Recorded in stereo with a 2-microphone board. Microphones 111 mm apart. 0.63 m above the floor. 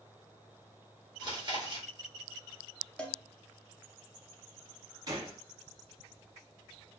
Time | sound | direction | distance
1.2 | chewing | 40° right (ahead or behind) | 1.6 m
3.0 | a cowbell | 10° left (ahead or behind) | 0.8 m
5.1 | a gunshot | 35° right (ahead or behind) | 1.3 m